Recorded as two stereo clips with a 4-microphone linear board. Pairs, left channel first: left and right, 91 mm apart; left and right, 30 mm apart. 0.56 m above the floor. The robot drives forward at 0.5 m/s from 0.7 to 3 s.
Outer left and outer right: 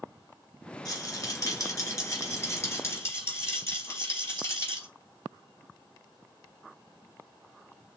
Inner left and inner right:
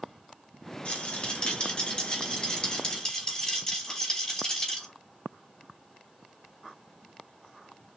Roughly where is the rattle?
Left.